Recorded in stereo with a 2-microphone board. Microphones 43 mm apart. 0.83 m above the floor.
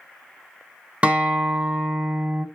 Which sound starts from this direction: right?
A guitar, at 1.0 s.